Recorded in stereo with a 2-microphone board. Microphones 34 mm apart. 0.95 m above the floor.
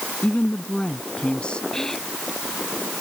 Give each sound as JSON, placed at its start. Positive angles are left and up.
{"t": 0.2, "sound": "a woman speaking", "side_deg": 35}
{"t": 1.7, "sound": "whispering", "side_deg": 15}